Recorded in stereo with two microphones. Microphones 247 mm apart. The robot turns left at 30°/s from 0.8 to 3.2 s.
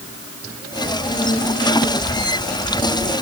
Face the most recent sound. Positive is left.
No sound to turn to.